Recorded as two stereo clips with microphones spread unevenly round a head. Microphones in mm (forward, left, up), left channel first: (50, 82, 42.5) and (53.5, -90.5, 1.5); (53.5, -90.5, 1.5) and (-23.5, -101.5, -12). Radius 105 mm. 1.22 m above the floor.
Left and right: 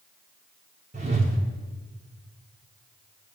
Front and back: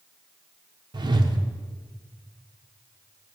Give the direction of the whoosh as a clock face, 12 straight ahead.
5 o'clock.